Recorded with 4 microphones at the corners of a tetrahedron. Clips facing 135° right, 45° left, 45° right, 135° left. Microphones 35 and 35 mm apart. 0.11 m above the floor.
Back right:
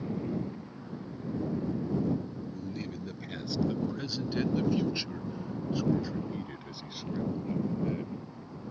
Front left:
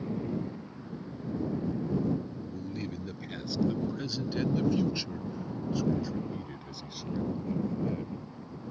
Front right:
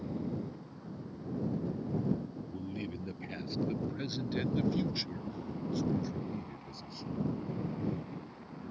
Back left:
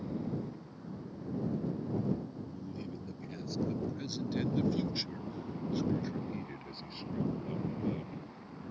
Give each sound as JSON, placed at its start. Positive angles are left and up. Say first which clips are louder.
{"t": 2.5, "sound": "a man speaking", "louder": "front left 1 dB, front right 3 dB", "azimuth_deg": -40}